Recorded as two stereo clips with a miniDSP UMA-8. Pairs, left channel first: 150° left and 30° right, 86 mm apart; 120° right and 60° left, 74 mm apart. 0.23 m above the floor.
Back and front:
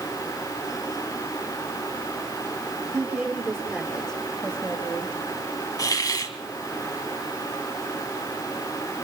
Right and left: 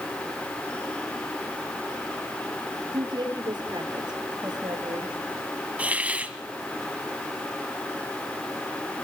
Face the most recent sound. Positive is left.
turn(degrees=125)